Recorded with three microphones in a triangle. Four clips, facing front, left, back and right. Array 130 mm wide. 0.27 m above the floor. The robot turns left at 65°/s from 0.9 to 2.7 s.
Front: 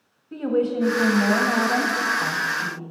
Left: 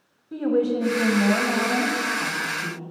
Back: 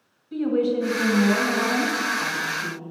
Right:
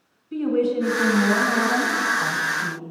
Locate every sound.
0.3 s a woman speaking: 50° left, 1.4 m; by 2.8 s 65° right, 1.4 m